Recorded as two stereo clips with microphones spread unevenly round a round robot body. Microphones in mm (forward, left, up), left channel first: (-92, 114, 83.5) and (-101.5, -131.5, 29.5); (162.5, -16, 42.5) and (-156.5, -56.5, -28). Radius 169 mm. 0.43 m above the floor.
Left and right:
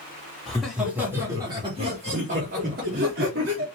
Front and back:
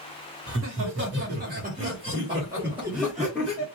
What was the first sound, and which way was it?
Laughter, 175° right.